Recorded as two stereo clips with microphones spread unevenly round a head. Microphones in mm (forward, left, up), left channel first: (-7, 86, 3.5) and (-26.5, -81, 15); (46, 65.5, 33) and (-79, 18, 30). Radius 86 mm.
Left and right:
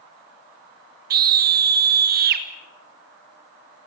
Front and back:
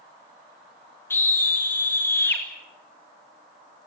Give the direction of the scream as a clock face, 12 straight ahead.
2 o'clock.